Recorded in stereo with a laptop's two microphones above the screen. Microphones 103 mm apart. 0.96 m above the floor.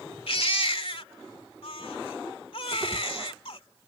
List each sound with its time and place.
0.3 s a baby crying: 65° left (ahead or behind)